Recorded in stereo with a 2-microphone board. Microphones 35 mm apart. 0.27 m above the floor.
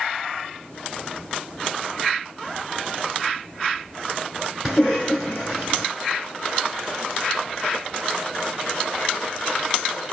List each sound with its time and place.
4.7 s a cough: centre (ahead or behind), 3 m